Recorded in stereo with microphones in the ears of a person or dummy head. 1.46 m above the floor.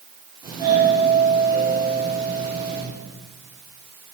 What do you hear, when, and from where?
0.4 s a doorbell: 20° right (ahead or behind), 5 m